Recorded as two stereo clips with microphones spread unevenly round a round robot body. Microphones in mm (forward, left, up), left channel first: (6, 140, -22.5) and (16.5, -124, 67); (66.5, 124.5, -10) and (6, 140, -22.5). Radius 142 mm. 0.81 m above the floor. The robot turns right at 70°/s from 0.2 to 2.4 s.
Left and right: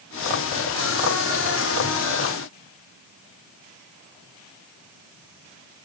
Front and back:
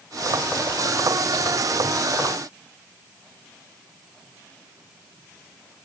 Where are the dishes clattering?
I don't hear dishes clattering.